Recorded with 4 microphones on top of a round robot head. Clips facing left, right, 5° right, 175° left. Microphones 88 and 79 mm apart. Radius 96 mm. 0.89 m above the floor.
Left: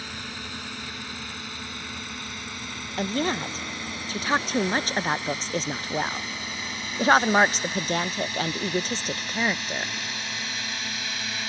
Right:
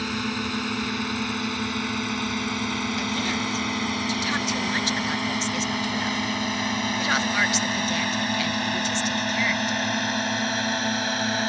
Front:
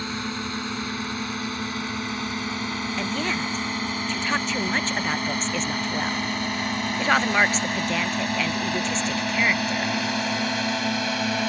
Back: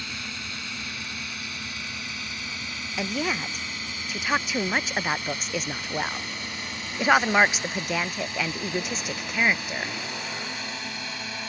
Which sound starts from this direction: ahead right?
A drone, at 0.0 s.